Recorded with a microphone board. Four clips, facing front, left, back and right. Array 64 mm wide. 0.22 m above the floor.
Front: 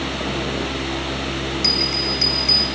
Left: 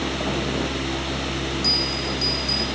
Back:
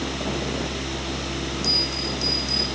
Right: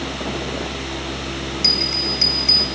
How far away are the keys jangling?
No keys jangling in this recording.